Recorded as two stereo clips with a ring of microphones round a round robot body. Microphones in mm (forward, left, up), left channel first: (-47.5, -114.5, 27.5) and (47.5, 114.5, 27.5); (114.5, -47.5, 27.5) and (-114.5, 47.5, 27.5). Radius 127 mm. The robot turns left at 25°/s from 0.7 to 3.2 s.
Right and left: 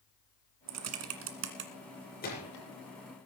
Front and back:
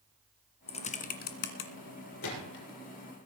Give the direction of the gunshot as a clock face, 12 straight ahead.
2 o'clock.